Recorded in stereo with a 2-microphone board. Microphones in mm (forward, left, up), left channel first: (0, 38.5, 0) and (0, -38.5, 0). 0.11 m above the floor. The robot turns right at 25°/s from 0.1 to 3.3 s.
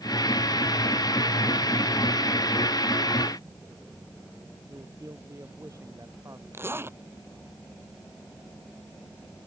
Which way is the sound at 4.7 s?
40° right (ahead or behind).